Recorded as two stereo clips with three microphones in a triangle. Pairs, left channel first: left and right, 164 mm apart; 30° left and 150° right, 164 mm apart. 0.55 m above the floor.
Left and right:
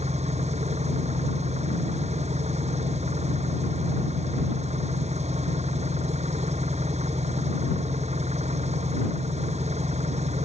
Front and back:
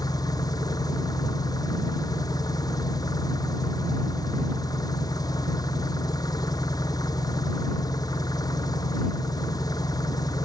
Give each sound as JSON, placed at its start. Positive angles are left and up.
{"t": 0.0, "sound": "an engine running", "azimuth_deg": -40}